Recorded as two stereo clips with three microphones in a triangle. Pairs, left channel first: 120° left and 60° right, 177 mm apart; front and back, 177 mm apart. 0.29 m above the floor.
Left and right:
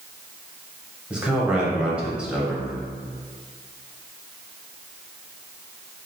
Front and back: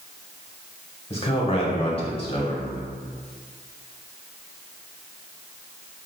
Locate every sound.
1.1 s a man speaking: 20° left, 1.0 m